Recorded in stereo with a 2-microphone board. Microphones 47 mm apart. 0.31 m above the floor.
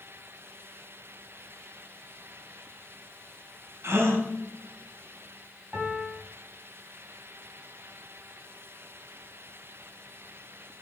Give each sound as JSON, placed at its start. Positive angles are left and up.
{"t": 3.8, "sound": "a gasp", "side_deg": -75, "distance_m": 1.1}
{"t": 5.7, "sound": "a piano", "side_deg": -50, "distance_m": 1.4}